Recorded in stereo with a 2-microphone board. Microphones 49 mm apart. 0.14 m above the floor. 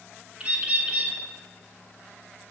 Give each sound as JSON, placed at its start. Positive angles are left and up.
{"t": 0.4, "sound": "a bird", "side_deg": -25, "distance_m": 0.5}